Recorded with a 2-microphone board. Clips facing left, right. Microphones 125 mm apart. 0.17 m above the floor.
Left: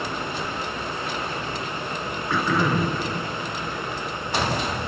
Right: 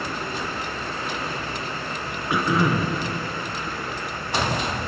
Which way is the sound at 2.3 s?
15° right (ahead or behind).